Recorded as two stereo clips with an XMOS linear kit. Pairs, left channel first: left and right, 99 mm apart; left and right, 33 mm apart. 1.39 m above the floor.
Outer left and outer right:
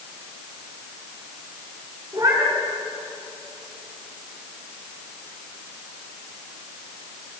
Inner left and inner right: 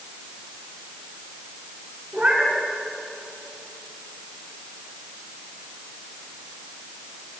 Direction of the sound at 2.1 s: 40° right (ahead or behind).